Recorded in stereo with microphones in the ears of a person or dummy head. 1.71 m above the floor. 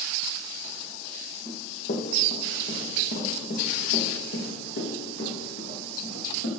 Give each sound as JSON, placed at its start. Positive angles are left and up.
{"t": 1.4, "sound": "running footsteps", "side_deg": 40, "distance_m": 2.5}